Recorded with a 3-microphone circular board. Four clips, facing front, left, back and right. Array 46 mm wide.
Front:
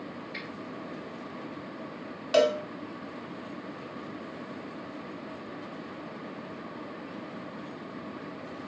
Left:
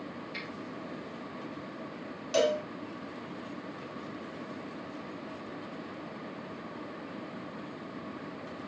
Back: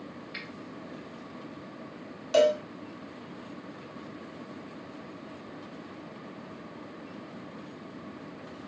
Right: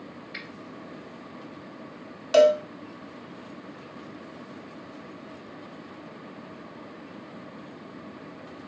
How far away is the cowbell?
About 0.5 m.